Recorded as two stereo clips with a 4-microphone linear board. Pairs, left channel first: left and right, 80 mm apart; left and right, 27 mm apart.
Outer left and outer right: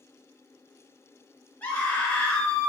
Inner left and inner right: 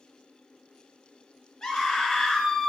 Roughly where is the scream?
Left.